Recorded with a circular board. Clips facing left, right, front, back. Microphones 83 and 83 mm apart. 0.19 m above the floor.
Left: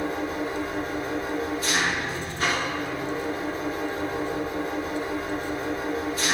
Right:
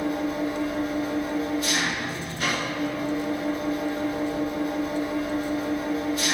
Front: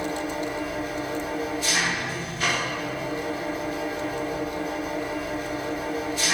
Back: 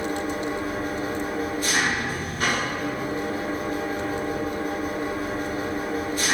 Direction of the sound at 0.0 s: 140° left.